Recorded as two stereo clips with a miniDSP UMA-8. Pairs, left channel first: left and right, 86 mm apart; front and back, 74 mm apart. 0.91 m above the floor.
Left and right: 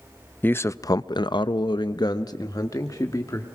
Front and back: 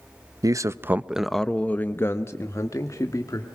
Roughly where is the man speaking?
Behind left.